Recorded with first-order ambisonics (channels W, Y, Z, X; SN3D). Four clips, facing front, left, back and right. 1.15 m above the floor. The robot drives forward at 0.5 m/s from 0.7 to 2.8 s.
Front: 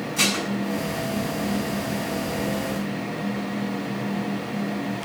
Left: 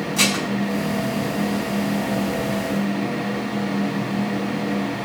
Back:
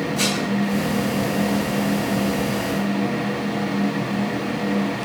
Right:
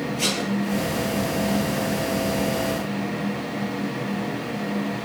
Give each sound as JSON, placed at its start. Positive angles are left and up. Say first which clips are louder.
{"t": 0.2, "sound": "dishes clattering", "louder": "left 6 dB, front 2 dB", "azimuth_deg": 75, "distance_m": 5.5}